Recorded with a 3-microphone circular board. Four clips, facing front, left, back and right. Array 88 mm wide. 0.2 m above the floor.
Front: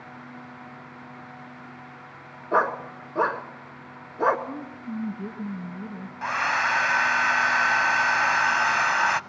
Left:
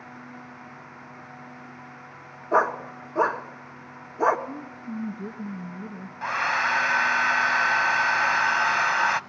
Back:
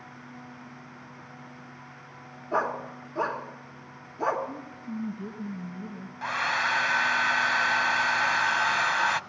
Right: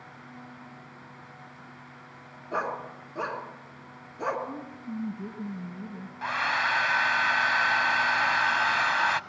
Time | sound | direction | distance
2.5 | a dog barking | 45° left | 1.2 m
4.5 | a woman speaking | 5° right | 1.5 m
6.2 | a hair dryer | 35° left | 0.5 m